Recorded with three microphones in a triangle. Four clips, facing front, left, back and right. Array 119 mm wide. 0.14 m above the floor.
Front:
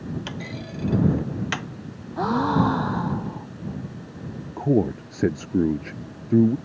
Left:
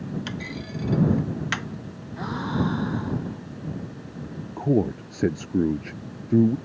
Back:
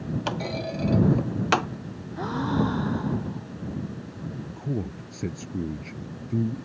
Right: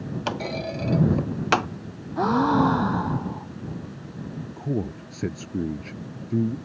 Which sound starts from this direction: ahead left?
A man speaking, at 4.6 s.